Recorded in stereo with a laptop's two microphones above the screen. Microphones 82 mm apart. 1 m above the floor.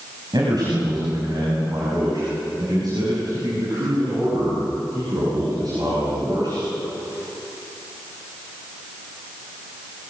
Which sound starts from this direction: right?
A man speaking, at 0.3 s.